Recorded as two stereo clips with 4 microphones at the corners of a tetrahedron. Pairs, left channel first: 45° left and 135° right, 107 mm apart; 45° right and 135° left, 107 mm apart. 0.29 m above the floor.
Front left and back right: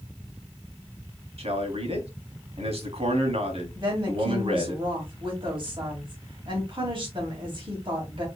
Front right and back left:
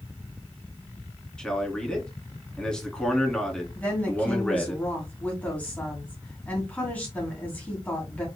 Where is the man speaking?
125° right, 2 m.